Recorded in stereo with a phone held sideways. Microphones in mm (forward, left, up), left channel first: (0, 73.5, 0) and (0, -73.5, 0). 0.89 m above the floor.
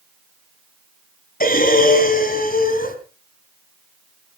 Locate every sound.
1.4 s breathing: 75° left (ahead or behind), 2 m